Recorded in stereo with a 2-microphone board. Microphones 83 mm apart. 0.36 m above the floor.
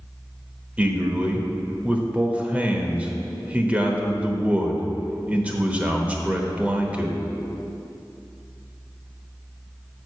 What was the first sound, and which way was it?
A man speaking, 20° right (ahead or behind).